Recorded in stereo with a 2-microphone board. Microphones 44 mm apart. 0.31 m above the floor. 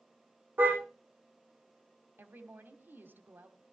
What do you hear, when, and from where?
0.6 s a car horn: 45° right (ahead or behind), 8 m
2.2 s a woman speaking: 50° right (ahead or behind), 2 m